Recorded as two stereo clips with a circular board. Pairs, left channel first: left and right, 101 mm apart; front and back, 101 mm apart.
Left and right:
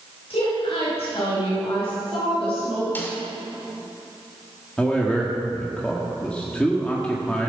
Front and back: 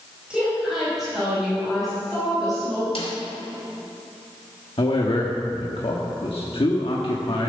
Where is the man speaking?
15° left, 1.2 m.